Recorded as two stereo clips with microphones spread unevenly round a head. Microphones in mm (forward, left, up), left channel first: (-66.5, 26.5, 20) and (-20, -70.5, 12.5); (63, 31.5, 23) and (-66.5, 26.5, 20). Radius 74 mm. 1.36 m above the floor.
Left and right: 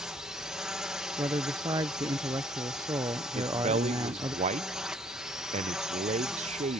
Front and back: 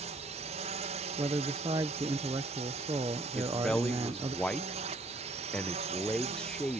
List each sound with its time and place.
0.0 s a drone: 150° right
1.2 s a man speaking: 115° right
3.4 s a man speaking: 80° right